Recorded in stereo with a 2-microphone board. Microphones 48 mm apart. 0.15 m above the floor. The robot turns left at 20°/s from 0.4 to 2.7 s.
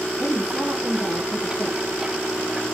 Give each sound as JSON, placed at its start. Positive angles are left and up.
{"t": 0.2, "sound": "a woman speaking", "side_deg": 50, "distance_m": 2.5}